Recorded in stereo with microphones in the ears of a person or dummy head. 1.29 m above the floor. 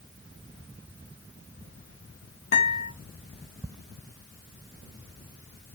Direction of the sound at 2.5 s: 50° left (ahead or behind).